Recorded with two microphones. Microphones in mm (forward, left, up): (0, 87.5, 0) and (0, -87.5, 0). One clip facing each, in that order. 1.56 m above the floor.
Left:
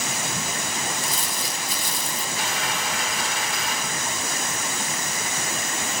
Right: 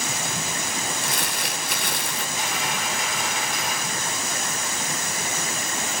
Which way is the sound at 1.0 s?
65° right (ahead or behind).